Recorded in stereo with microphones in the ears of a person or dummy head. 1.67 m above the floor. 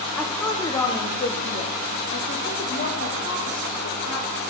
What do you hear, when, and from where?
0.2 s a woman speaking: 5° left (ahead or behind), 0.9 m; by 4.4 s 60° left (ahead or behind), 2.5 m